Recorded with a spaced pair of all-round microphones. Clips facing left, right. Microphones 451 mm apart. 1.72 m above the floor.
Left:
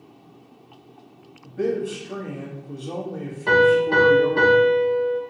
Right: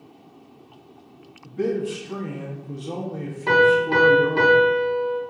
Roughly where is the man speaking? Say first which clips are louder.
Even; centre.